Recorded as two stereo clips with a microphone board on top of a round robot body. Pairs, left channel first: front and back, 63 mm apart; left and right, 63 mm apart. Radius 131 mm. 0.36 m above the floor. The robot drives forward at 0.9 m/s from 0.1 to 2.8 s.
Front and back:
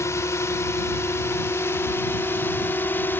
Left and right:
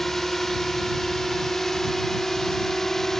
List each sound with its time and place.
0.0 s a drone: 5° left; by 3.2 s 10° left